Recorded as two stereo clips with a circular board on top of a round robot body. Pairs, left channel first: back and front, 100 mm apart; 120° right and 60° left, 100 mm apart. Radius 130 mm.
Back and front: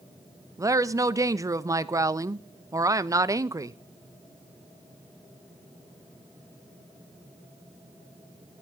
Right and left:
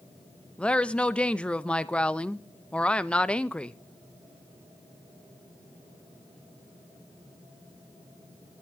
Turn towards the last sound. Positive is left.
turn(degrees=-45)